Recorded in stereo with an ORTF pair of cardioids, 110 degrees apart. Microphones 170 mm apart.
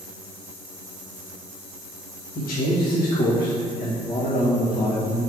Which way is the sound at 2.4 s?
60° left.